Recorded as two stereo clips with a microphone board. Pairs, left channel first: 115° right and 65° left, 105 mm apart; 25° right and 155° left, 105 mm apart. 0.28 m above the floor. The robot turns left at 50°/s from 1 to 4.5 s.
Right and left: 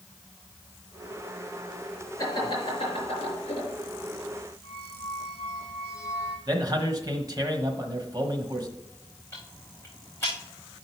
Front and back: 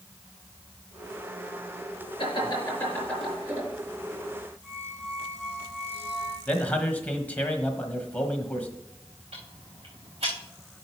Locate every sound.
2.2 s laughter: 55° right, 5.5 m; by 3.7 s 130° right, 5.5 m
4.6 s a squeak: 170° right, 5.5 m
6.5 s a man speaking: 45° left, 1.2 m
9.3 s ticking: 175° right, 5 m